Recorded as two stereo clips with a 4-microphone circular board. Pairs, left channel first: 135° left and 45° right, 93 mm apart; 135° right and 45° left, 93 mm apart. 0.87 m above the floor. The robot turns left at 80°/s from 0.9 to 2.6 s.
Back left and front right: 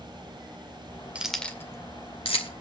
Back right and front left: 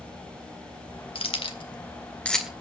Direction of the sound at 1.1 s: 125° right.